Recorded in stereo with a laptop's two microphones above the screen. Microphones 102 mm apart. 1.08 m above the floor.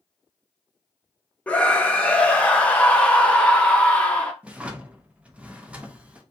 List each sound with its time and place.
1.5 s a scream: 10° left (ahead or behind), 0.5 m
4.4 s a drawer: 10° right (ahead or behind), 0.5 m